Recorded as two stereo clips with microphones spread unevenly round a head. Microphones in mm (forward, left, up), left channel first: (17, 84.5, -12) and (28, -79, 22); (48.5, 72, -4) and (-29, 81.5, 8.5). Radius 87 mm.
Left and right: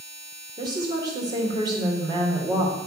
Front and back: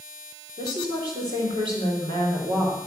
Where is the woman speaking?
155° right, 3.5 m.